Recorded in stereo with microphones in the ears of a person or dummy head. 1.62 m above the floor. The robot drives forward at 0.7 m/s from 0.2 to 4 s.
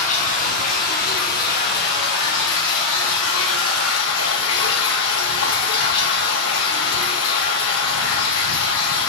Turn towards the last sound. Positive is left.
turn(degrees=85)